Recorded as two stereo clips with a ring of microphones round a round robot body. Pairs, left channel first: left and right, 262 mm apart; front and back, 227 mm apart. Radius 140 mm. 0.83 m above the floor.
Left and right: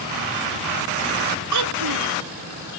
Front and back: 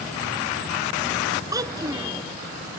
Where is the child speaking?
105° right.